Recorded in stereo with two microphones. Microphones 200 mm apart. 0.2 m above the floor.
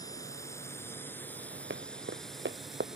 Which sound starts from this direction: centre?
A drone, at 0.0 s.